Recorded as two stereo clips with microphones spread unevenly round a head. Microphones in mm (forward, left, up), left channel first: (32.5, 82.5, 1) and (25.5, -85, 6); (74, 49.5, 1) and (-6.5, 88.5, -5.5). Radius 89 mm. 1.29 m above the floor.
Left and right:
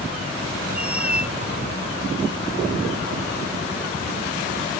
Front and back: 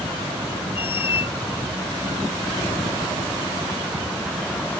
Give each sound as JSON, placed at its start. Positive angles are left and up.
{"t": 0.8, "sound": "a squeak", "azimuth_deg": -10}